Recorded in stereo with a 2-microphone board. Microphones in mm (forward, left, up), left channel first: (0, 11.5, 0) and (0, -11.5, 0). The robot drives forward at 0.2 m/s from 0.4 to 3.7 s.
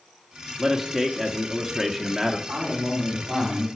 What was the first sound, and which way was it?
A man speaking, 15° right (ahead or behind).